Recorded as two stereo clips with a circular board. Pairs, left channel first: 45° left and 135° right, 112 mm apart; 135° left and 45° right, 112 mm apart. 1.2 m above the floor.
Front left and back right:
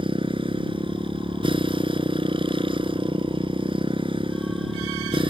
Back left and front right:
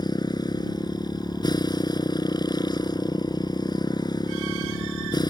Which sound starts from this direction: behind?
A motorcycle, at 0.0 s.